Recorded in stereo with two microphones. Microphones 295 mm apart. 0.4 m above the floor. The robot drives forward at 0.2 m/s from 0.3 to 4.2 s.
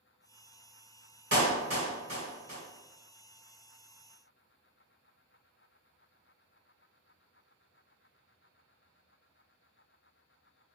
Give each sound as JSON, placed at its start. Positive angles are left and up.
{"t": 1.3, "sound": "a clap", "side_deg": -55, "distance_m": 1.9}